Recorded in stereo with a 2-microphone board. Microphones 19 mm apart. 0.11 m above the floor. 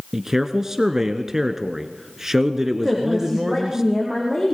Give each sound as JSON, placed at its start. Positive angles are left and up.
{"t": 0.1, "sound": "a man speaking", "side_deg": -25, "distance_m": 1.3}
{"t": 2.8, "sound": "a woman speaking", "side_deg": -20, "distance_m": 5.5}